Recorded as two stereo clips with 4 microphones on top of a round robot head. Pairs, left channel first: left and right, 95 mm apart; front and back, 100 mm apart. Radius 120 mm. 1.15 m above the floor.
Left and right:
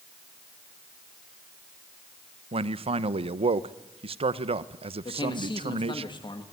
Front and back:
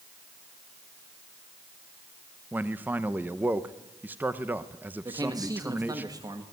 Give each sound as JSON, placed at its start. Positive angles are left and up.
{"t": 2.5, "sound": "a man speaking", "azimuth_deg": -110, "distance_m": 0.8}
{"t": 5.0, "sound": "a man speaking", "azimuth_deg": 125, "distance_m": 2.0}